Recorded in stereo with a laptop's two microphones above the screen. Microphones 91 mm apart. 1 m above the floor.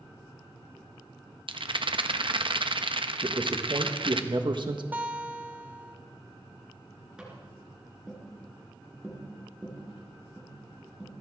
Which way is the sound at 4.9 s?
20° right (ahead or behind).